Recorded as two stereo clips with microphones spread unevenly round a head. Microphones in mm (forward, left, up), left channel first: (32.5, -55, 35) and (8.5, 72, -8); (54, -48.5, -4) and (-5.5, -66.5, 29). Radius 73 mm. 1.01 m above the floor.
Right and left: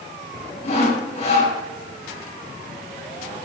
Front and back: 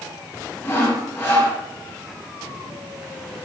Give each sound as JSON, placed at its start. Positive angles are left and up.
{"t": 0.6, "sound": "sawing", "azimuth_deg": -40, "distance_m": 9.0}